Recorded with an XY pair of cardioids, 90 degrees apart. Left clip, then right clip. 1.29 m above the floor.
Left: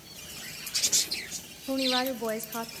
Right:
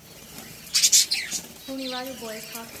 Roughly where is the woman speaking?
Ahead left.